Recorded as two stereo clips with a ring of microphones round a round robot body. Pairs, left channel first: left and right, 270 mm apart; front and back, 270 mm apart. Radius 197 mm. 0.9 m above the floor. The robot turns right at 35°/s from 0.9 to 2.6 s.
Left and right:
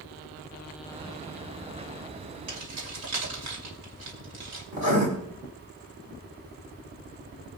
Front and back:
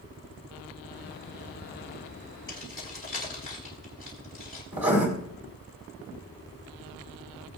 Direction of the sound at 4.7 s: 135° right.